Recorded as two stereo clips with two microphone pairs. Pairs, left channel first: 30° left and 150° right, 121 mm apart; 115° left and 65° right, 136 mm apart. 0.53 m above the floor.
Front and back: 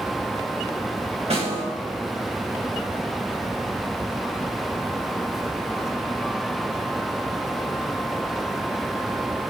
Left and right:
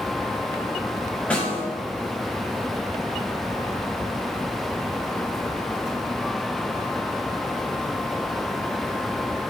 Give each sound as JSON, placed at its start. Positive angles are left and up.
{"t": 1.3, "sound": "a snare drum", "azimuth_deg": -170, "distance_m": 3.0}